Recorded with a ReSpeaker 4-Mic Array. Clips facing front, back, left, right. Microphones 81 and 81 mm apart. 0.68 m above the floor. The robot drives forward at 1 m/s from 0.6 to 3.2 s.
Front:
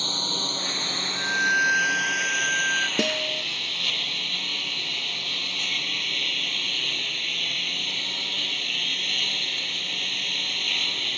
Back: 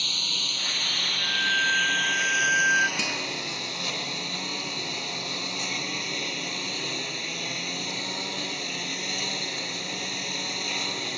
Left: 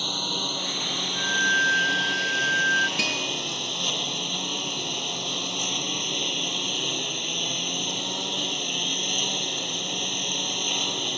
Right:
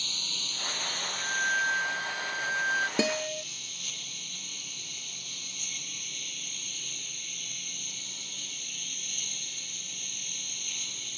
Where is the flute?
35° left; by 2.9 s 135° left.